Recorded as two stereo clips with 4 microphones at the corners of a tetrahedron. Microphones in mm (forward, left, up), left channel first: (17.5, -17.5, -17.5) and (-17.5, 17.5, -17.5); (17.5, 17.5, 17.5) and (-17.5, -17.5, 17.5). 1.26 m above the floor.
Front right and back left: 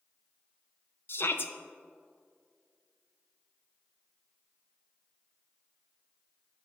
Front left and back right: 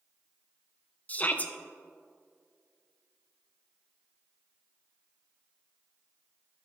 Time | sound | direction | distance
1.1 | a shout | 15° right | 0.7 m